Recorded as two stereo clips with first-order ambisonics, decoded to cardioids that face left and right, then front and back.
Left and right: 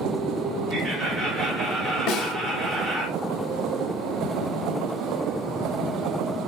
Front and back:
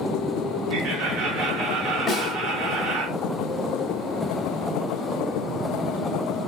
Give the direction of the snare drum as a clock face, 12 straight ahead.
9 o'clock.